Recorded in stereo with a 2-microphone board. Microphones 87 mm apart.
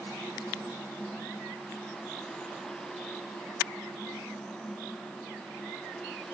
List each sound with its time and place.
Only background noise.